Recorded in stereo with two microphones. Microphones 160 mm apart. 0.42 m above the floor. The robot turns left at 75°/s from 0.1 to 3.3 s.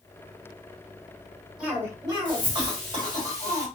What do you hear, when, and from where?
1.6 s a cough: 10° right, 1.5 m; by 3.7 s 140° right, 1.5 m